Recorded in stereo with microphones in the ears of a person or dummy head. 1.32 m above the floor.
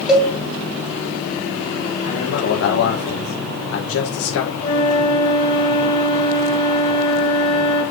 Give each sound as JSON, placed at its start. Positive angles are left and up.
{"t": 0.1, "sound": "a cowbell", "side_deg": 0, "distance_m": 3.0}
{"t": 2.0, "sound": "a man speaking", "side_deg": 70, "distance_m": 1.6}
{"t": 4.6, "sound": "a flute", "side_deg": 20, "distance_m": 4.0}